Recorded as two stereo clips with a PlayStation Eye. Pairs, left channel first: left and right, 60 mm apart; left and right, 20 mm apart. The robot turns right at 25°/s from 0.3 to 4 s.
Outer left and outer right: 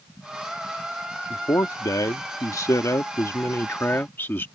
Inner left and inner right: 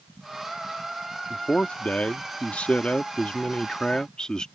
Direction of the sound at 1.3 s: 75° left.